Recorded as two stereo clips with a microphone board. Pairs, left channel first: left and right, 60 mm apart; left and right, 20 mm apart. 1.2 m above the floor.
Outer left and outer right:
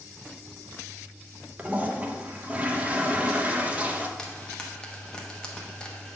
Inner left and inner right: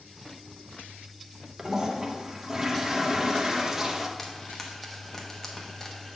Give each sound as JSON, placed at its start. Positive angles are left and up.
{"t": 1.6, "sound": "a toilet flushing", "side_deg": -25, "distance_m": 0.7}
{"t": 4.2, "sound": "frying", "side_deg": 15, "distance_m": 0.9}